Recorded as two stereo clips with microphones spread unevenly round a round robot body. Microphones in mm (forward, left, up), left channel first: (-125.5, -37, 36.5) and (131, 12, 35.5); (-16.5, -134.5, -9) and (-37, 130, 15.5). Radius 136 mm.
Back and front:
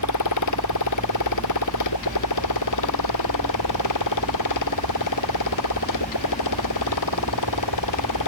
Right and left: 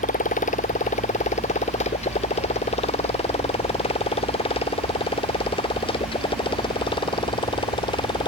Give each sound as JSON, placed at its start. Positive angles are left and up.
{"t": 0.0, "sound": "a motorcycle", "azimuth_deg": -150}